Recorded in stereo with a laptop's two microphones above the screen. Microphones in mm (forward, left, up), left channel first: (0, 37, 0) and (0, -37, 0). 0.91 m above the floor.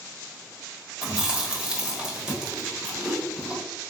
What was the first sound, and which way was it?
Chewing, 15° right (ahead or behind).